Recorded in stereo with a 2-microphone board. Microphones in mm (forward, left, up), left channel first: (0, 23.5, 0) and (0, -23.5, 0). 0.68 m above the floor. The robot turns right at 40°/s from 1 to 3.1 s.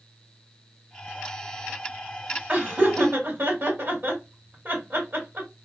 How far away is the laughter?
About 2.0 m.